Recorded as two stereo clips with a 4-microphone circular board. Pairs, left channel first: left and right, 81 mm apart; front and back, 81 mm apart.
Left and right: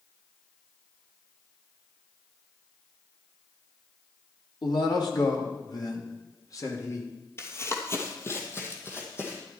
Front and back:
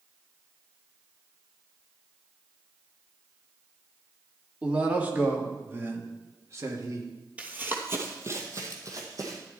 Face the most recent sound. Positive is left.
turn(degrees=145)